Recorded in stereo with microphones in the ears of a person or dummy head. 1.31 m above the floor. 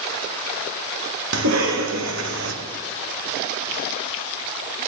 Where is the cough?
75° right (ahead or behind), 1.1 m.